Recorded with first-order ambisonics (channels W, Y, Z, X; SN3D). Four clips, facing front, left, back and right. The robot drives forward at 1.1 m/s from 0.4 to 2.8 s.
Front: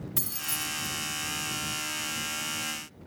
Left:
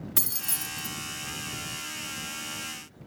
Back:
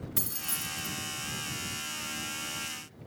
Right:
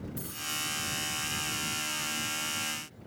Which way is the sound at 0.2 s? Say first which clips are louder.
Left 2 dB, front 3 dB; 85° left.